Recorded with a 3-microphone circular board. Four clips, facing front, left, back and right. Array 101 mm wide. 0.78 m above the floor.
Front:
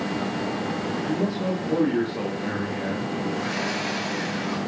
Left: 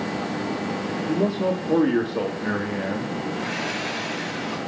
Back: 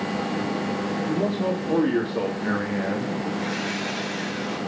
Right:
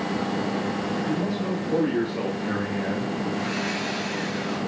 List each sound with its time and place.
1.1 s a man speaking: 100° left, 2 m; by 3.2 s 150° left, 1.6 m
3.3 s sawing: 40° left, 3 m